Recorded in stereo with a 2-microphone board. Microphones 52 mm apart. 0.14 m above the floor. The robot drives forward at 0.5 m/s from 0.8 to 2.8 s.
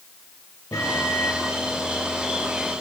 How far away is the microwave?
About 2.5 m.